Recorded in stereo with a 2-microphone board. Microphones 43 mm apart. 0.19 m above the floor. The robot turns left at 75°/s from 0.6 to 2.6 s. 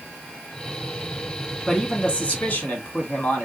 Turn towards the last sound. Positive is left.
turn(degrees=105)